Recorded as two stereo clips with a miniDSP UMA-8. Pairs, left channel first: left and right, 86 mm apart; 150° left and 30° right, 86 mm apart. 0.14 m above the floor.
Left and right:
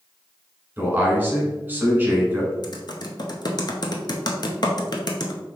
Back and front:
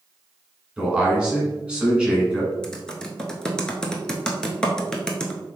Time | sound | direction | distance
0.8 | a man speaking | 95° right | 1.4 m
2.6 | typing on a keyboard | 70° left | 0.6 m